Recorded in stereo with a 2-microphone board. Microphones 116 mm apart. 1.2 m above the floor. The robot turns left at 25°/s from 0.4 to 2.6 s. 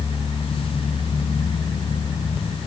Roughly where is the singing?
I don't hear singing.